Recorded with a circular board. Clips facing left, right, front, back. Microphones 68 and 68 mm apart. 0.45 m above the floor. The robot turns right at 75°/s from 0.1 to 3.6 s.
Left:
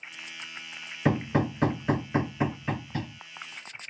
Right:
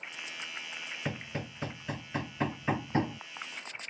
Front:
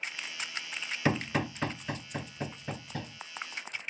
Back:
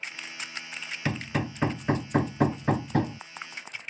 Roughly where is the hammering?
Ahead left.